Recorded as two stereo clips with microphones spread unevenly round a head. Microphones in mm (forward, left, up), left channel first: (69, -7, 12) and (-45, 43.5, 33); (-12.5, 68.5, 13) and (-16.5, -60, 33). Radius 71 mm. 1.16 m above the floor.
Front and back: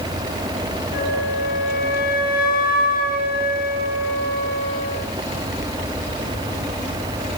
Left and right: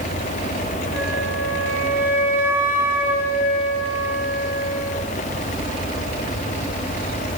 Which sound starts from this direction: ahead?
A flute, at 0.9 s.